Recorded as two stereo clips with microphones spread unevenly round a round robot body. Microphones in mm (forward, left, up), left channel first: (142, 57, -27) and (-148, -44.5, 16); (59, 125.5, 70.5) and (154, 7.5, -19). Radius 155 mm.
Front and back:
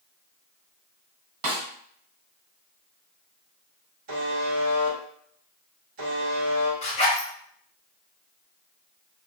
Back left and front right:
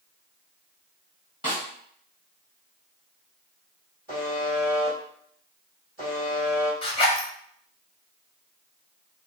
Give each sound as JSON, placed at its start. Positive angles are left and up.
{"t": 1.4, "sound": "a snare drum", "azimuth_deg": -165, "distance_m": 1.0}
{"t": 4.1, "sound": "a buzzer", "azimuth_deg": -175, "distance_m": 1.3}
{"t": 6.8, "sound": "a zipper", "azimuth_deg": 45, "distance_m": 1.2}